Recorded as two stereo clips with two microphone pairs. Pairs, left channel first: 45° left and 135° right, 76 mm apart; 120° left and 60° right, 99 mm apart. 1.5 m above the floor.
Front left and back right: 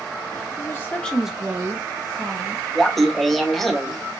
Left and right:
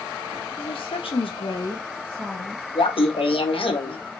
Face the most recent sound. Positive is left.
turn(degrees=130)